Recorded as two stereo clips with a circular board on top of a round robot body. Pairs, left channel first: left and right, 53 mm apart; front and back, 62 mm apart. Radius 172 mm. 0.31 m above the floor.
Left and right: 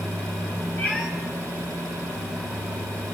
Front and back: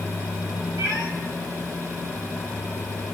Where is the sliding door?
I don't hear a sliding door.